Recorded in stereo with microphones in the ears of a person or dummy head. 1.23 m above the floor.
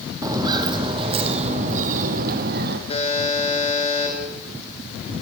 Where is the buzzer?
35° left (ahead or behind), 6 m.